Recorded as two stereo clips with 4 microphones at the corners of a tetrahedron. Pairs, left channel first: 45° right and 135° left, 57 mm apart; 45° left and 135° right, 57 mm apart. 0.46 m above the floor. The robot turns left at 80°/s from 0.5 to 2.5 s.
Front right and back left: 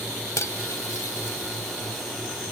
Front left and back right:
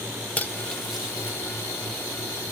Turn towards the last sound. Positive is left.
turn(degrees=-175)